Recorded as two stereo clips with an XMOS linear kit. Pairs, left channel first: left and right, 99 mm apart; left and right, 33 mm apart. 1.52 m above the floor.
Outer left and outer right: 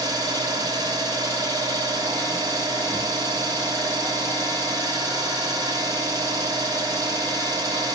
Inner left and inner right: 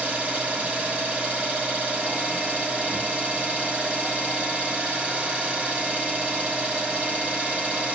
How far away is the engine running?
About 1.4 m.